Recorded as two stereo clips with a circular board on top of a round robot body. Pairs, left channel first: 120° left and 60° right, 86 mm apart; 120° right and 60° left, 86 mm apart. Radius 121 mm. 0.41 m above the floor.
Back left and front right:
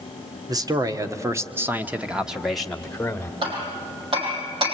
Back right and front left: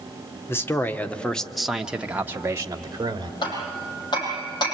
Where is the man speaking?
70° right, 1.7 m; by 3.3 s 55° left, 1.7 m.